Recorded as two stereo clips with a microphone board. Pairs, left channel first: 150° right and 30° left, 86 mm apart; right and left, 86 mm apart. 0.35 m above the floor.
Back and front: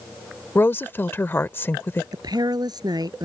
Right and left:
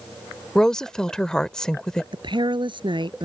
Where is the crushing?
I don't hear crushing.